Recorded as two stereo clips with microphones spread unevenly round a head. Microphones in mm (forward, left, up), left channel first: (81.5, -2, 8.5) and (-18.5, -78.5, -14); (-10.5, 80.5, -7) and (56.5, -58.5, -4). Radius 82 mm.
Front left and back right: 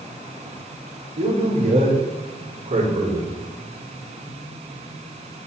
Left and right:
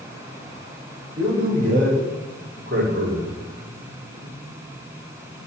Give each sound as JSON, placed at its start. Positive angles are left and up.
{"t": 1.2, "sound": "a man speaking", "azimuth_deg": -120, "distance_m": 5.5}